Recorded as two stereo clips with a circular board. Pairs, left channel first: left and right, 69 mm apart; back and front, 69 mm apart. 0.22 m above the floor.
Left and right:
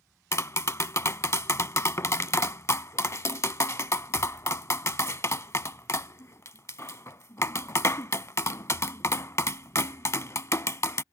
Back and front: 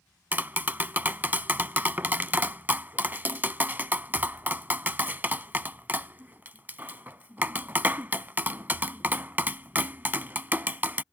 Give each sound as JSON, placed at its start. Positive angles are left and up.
{"t": 0.3, "sound": "tapping", "azimuth_deg": 55}